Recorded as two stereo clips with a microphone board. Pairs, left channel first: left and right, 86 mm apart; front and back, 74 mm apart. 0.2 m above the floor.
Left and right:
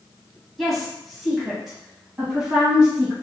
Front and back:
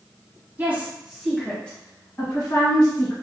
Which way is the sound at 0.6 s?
175° left.